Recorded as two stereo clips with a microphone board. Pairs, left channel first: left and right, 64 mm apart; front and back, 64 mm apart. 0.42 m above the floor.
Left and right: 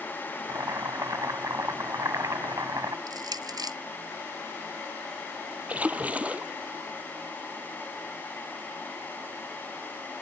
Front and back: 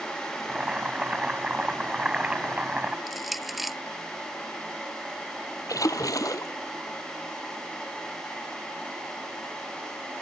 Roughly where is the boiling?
Right.